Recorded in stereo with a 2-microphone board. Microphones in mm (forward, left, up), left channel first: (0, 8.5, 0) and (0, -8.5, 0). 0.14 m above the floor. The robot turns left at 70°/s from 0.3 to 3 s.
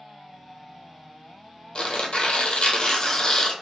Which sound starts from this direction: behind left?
Tearing paper, at 1.8 s.